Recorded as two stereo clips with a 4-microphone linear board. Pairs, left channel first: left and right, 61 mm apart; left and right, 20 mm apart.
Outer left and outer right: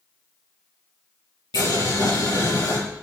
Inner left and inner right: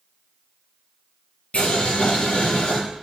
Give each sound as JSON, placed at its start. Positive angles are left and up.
{"t": 1.5, "sound": "boiling", "side_deg": 85, "distance_m": 6.0}